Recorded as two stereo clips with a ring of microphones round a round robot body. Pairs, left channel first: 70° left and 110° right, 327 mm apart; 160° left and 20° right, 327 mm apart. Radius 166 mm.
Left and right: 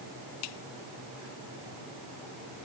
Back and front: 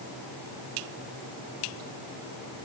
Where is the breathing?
I don't hear breathing.